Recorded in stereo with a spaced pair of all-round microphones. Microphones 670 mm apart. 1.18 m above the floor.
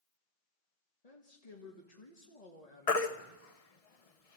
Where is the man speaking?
65° left (ahead or behind), 1.9 m.